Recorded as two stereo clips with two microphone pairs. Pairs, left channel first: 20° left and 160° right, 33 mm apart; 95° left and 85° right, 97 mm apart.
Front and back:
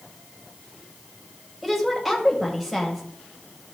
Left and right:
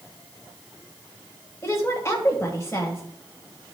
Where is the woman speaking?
120° left, 1.4 m.